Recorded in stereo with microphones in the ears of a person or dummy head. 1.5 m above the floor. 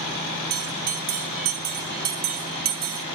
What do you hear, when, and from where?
0.5 s a bell: 40° right (ahead or behind), 1.8 m